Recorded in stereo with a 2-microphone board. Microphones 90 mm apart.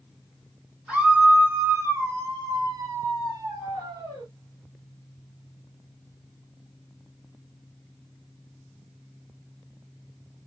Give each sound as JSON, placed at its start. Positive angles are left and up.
{"t": 0.9, "sound": "a scream", "side_deg": -10, "distance_m": 1.4}